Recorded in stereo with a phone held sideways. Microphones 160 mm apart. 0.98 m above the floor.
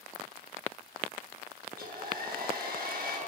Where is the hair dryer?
65° right (ahead or behind), 7.5 m.